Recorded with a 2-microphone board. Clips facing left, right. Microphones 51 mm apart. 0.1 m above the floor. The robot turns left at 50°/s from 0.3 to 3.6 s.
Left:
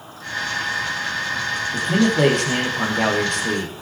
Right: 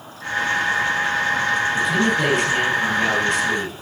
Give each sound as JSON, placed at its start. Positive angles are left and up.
{"t": 1.7, "sound": "a man speaking", "azimuth_deg": 140, "distance_m": 3.5}